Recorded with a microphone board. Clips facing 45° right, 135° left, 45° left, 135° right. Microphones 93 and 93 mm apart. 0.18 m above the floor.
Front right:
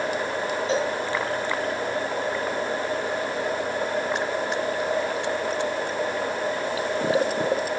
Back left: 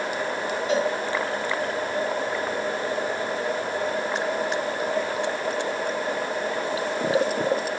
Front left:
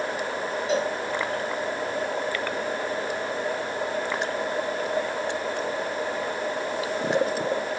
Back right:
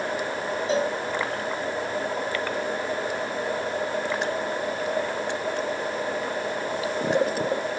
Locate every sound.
0.7 s a cowbell: 95° right, 1.3 m